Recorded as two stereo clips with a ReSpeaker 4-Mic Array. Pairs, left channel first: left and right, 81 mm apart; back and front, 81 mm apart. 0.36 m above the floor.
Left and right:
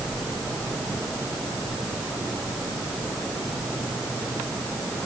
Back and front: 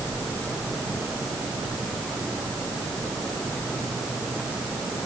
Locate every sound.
Only background noise.